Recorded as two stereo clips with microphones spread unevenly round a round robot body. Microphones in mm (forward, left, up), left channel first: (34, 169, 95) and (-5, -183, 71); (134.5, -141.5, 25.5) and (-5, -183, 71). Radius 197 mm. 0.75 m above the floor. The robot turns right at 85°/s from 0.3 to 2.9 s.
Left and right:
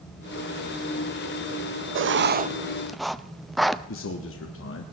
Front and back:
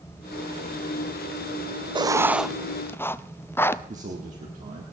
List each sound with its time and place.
1.9 s writing: 95° right, 0.7 m; by 3.8 s 10° right, 0.7 m
3.9 s a man speaking: 140° left, 1.5 m